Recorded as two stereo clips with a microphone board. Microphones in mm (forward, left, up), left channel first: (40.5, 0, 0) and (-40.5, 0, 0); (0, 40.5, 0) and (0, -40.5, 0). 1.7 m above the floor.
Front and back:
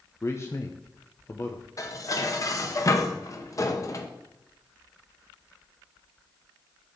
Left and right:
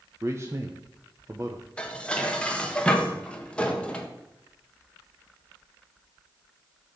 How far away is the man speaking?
About 0.8 m.